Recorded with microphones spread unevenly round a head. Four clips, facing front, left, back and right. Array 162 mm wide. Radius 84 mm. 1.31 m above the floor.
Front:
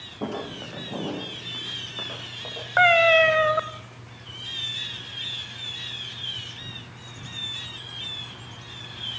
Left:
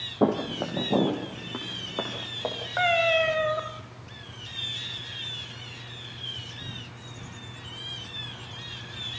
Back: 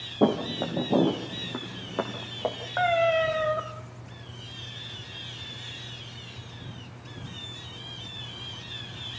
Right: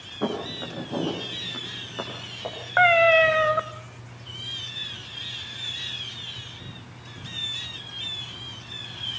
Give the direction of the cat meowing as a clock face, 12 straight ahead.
1 o'clock.